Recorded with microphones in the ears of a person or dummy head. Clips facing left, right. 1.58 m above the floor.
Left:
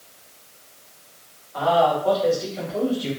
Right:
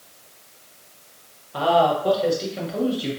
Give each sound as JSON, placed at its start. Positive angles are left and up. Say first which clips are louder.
{"t": 1.5, "sound": "a man speaking", "louder": "even", "side_deg": -45, "distance_m": 1.0}